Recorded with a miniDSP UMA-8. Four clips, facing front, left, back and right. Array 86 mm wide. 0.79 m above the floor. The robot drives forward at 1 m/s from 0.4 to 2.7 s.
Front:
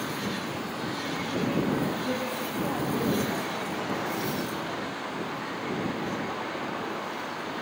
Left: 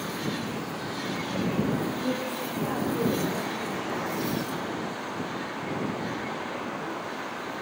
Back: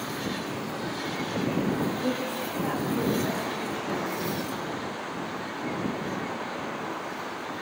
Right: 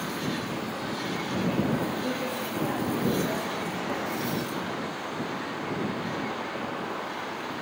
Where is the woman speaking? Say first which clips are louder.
Even, back 1 dB; 175° right, 5 m.